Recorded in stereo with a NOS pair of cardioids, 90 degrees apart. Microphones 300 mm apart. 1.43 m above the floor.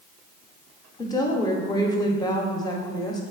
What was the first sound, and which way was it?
A woman speaking, 15° left.